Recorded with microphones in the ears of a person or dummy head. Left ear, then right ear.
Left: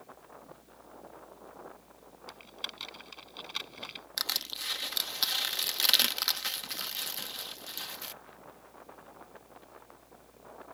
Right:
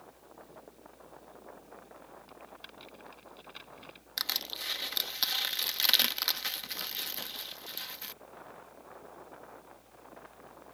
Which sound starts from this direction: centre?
Crushing, at 4.2 s.